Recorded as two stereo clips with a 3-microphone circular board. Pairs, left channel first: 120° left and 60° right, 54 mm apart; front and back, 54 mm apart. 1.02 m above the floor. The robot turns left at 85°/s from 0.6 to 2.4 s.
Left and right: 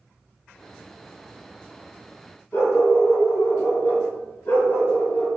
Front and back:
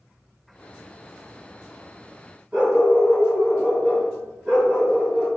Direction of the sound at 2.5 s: 110° left.